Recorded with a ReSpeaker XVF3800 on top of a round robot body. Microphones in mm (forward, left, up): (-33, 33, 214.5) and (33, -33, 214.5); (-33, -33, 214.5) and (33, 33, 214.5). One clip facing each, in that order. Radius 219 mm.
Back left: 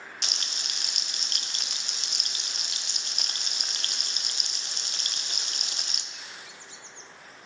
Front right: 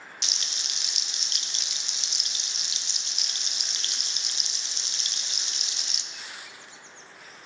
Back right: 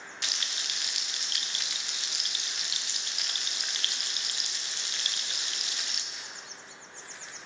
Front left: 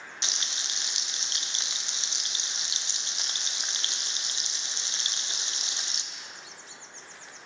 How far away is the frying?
About 0.7 m.